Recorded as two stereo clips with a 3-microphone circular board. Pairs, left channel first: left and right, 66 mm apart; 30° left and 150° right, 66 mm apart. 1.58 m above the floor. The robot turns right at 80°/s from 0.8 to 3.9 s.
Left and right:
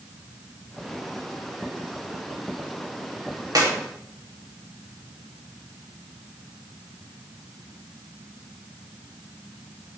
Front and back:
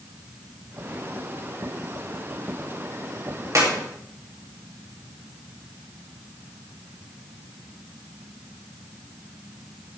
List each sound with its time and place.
3.5 s a clap: 110° right, 3 m; by 3.7 s 100° right, 3 m